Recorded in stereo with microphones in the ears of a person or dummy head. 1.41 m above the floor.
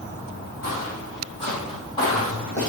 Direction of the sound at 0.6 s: 50° left (ahead or behind).